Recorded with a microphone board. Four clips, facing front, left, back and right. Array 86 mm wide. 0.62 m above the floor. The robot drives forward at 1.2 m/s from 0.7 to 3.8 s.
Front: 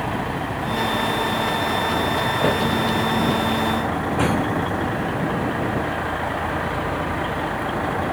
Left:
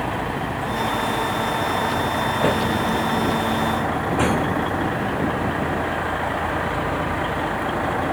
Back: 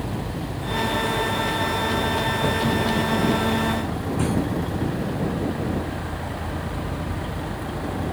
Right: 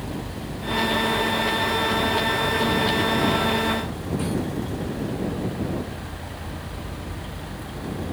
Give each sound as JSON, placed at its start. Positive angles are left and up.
{"t": 0.0, "sound": "a vehicle", "azimuth_deg": 50}